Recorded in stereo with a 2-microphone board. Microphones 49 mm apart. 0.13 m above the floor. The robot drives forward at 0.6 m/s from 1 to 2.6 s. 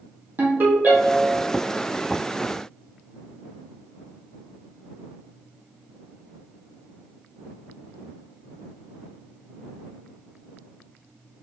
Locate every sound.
0.4 s a ringtone: 40° right (ahead or behind), 2.0 m; by 1.4 s 35° right (ahead or behind), 2 m